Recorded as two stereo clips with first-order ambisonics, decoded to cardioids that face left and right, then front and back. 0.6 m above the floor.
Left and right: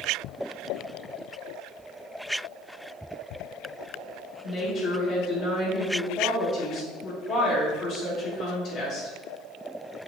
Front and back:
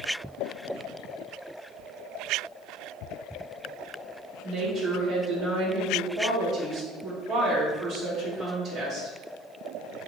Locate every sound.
4.4 s a woman speaking: 125° left, 1.7 m